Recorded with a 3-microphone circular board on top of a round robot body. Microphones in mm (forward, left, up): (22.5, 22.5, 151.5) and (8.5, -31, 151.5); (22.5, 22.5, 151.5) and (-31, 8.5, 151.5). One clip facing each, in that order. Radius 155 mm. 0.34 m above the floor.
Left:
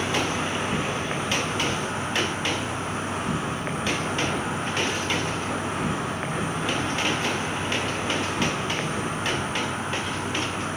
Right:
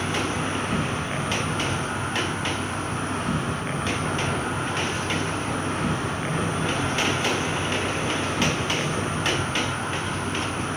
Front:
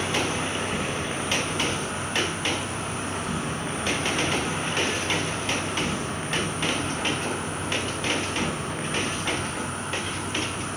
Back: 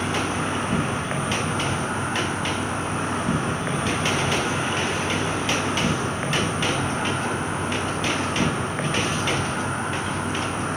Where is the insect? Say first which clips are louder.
Left 1 dB, back 2 dB; 150° left, 4 m.